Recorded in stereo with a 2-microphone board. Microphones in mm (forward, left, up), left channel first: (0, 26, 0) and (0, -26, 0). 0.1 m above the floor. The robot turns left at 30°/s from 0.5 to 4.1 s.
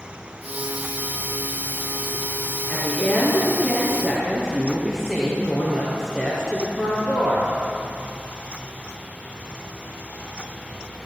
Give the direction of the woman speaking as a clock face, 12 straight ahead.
11 o'clock.